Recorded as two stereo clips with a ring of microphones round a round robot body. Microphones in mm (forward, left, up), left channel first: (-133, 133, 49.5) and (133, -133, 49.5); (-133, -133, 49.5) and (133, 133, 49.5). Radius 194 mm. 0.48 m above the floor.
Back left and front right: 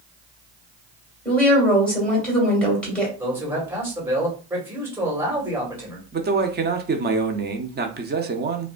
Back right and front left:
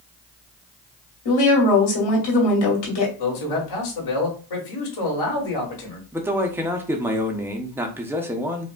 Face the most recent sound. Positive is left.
turn(degrees=-30)